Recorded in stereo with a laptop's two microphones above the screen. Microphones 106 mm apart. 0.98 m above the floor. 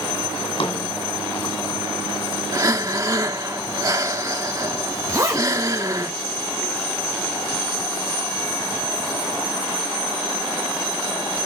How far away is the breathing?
About 1.3 m.